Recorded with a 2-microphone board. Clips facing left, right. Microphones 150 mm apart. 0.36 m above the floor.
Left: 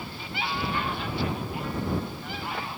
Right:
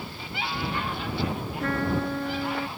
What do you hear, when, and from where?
1.6 s a trumpet: 75° right (ahead or behind)